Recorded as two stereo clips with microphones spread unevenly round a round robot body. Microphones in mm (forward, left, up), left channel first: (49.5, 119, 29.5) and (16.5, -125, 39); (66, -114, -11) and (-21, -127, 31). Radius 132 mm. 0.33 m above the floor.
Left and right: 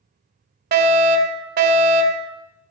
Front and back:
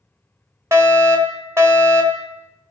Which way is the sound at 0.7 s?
95° right.